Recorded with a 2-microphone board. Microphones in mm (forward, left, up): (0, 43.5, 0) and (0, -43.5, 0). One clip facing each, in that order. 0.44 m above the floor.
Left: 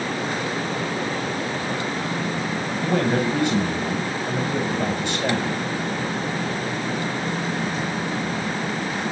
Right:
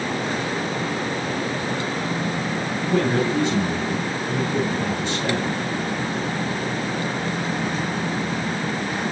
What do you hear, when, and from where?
2.8 s a man speaking: 65° left (ahead or behind), 3 m